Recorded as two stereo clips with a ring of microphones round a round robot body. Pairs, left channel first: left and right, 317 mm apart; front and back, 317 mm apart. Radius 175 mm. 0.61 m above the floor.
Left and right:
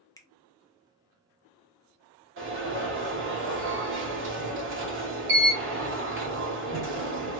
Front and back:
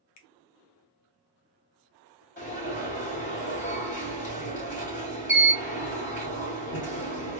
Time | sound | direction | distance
0.2 | a finger snap | 15° left | 0.7 m
2.4 | an alarm | 55° right | 2 m